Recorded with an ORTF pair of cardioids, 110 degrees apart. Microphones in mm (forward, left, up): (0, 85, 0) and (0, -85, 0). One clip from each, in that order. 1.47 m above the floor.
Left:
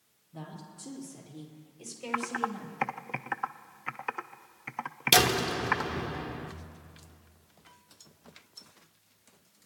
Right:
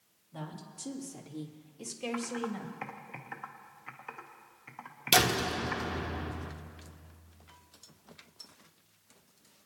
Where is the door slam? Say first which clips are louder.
Left 2 dB; 10° left, 0.9 m.